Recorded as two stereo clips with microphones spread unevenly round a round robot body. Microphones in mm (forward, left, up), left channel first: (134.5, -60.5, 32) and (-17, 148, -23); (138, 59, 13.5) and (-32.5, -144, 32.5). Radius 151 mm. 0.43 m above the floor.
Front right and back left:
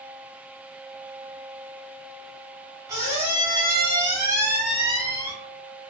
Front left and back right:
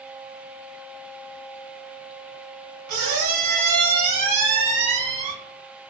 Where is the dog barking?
No dog barking in this recording.